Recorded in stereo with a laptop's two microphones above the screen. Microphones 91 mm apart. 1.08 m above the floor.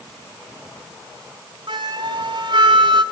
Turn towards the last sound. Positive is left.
turn(degrees=-60)  # may be behind; listen again after turning